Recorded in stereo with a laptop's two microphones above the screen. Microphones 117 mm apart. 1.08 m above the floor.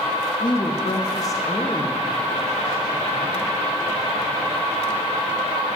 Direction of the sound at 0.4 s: 35° left (ahead or behind).